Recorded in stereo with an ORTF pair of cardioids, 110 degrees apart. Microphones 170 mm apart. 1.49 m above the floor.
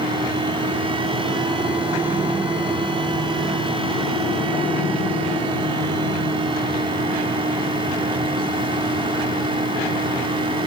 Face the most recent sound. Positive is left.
turn(degrees=-30)